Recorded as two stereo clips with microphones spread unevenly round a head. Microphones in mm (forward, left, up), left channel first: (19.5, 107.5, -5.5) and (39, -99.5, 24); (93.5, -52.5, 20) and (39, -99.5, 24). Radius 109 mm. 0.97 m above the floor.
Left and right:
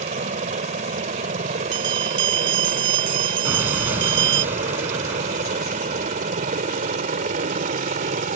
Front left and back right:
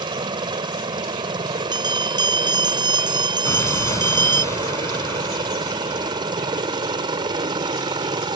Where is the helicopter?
145° right; by 8.4 s 140° right.